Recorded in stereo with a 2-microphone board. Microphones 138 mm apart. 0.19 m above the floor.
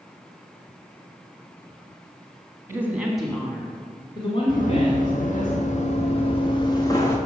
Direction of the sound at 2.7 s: 20° right (ahead or behind).